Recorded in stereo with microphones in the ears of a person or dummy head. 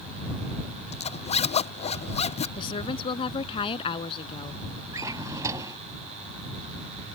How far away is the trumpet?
No trumpet in this recording.